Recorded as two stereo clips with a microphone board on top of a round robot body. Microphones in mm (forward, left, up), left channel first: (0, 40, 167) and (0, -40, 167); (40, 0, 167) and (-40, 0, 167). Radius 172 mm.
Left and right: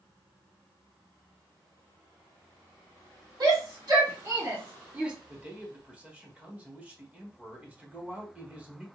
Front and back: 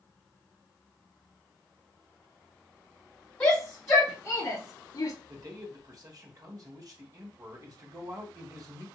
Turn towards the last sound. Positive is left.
turn(degrees=-155)